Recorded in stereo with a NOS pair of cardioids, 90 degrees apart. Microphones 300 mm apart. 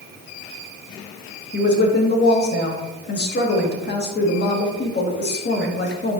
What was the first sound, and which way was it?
A woman speaking, 35° left.